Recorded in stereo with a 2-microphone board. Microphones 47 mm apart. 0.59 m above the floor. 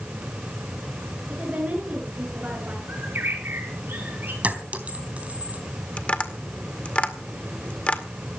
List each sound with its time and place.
1.3 s a woman speaking: 30° right (ahead or behind), 9.5 m
2.9 s a bird: 50° right (ahead or behind), 6 m
4.4 s a clink: 35° right (ahead or behind), 3 m
6.0 s tapping: 30° left (ahead or behind), 1.8 m